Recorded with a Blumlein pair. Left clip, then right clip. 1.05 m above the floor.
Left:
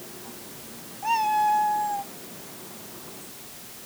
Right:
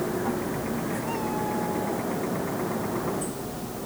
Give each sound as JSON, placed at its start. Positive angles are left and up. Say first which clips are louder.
{"t": 0.0, "sound": "a machine running", "louder": "right 15 dB", "azimuth_deg": -55}
{"t": 1.0, "sound": "a cat meowing", "louder": "left 12 dB", "azimuth_deg": 30}